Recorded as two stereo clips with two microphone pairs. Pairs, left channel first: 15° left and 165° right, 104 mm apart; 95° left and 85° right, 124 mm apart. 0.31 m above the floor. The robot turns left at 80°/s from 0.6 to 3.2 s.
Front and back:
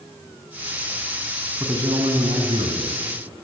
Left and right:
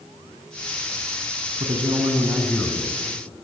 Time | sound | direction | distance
1.6 | a man speaking | 105° right | 3 m